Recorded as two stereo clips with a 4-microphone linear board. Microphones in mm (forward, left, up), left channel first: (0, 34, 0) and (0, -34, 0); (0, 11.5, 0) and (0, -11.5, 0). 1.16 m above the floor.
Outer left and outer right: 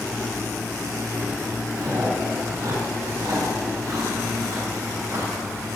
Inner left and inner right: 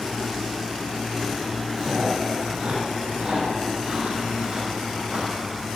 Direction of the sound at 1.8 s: 45° right (ahead or behind).